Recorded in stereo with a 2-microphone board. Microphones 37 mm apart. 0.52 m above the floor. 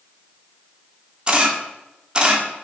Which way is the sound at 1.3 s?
25° right (ahead or behind).